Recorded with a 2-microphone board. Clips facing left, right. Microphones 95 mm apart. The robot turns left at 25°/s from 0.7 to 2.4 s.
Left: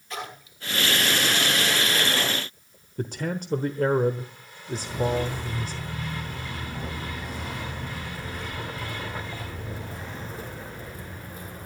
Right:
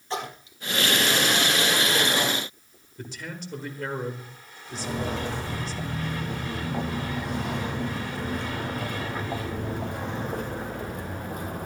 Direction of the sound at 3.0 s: 50° left (ahead or behind).